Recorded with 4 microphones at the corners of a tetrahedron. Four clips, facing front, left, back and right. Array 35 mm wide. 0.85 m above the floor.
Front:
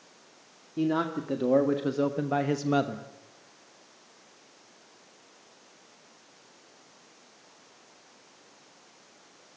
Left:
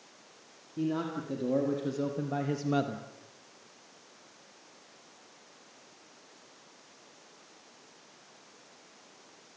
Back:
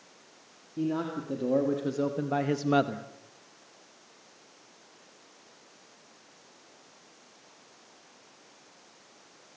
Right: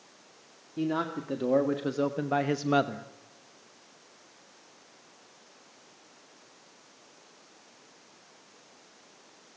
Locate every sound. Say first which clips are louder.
0.8 s a man speaking: right 2 dB, front 3 dB; 35° right, 2 m; by 3.1 s 140° right, 1.0 m